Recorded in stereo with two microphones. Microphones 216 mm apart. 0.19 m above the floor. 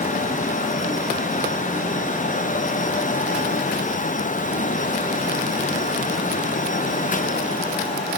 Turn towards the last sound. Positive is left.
No sound to turn to.